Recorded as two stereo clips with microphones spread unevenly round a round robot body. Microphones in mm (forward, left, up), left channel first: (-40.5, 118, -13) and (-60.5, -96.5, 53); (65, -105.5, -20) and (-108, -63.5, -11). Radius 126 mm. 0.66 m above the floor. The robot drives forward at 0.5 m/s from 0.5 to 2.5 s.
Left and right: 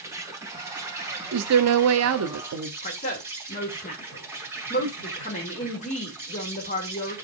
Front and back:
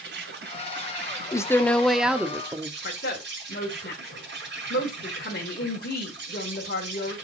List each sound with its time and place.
0.0 s an insect: 175° right, 3.5 m
1.3 s a woman speaking: 80° right, 1.0 m; by 2.7 s 120° right, 1.1 m
2.8 s a woman speaking: 35° left, 2 m